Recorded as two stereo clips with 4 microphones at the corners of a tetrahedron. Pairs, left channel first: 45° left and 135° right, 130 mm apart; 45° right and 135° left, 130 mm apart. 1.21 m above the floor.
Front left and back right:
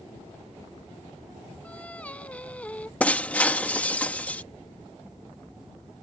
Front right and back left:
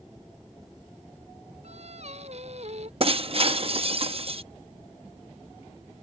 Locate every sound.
1.6 s singing: 125° left
3.0 s breaking glass: 120° left